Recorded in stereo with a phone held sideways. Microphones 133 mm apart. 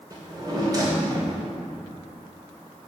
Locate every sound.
0.1 s a drawer: 30° right (ahead or behind), 2.5 m